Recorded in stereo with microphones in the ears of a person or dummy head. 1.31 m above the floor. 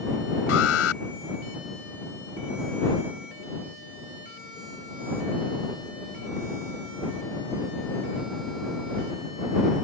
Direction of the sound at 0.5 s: 80° left.